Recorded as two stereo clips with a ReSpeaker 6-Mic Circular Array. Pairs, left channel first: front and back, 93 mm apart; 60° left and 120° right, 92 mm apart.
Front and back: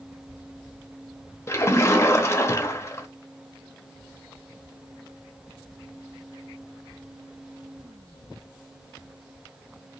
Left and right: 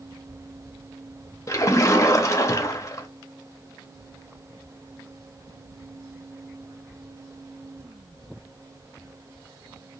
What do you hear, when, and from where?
1.5 s a splash: 35° left, 0.5 m